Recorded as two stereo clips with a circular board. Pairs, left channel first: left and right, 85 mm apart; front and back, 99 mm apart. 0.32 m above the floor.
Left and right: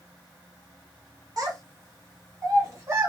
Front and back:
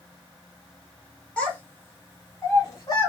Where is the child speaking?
75° right, 1.3 m; by 3.1 s 40° right, 1.9 m.